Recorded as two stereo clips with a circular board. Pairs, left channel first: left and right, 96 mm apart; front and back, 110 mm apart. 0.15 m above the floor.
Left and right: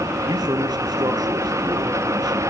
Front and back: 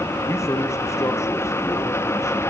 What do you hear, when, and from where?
0.3 s a man speaking: 60° right, 2.5 m